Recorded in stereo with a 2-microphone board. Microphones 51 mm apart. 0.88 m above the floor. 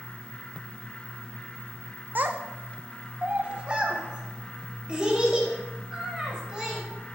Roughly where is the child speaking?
Right.